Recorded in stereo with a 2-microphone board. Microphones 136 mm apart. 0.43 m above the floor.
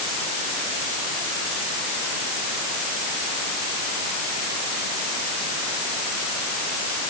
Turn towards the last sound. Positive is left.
No sound to turn to.